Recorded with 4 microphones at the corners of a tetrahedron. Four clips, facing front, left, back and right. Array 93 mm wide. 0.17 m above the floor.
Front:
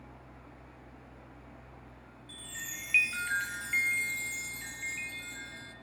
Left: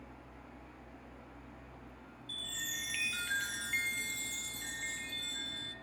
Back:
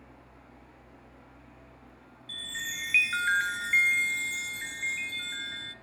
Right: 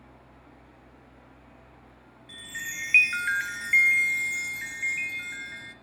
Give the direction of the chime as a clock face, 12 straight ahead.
4 o'clock.